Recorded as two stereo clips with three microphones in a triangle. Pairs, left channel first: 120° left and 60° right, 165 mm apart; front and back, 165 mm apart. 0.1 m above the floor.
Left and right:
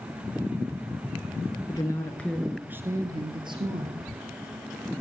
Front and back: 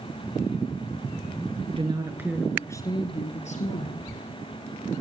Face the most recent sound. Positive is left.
turn(degrees=-10)